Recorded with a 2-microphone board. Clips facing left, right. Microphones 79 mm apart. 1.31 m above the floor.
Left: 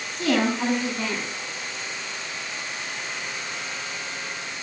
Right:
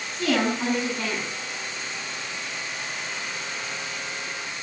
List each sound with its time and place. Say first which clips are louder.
0.1 s a woman speaking: left 1 dB; 30° left (ahead or behind), 9 m